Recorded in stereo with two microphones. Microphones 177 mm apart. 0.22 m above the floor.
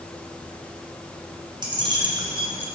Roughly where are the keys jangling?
Right.